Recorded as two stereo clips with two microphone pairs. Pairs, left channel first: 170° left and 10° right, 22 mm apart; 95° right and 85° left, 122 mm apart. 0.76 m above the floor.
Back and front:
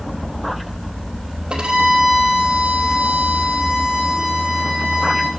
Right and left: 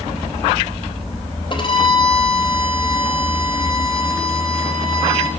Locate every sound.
1.5 s a violin: 50° right, 3.5 m